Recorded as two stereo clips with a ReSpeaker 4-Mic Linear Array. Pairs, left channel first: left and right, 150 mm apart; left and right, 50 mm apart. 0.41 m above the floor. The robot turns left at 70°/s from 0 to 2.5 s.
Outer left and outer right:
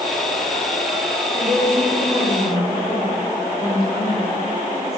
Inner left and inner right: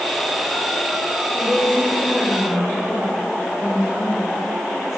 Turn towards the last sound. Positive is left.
turn(degrees=-165)